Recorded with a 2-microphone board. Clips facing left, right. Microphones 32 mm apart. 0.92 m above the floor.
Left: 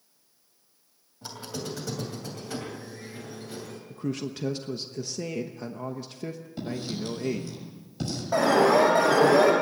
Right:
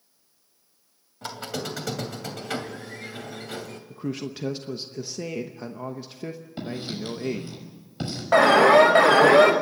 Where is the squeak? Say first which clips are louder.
Right 4 dB; 80° right, 2.5 m.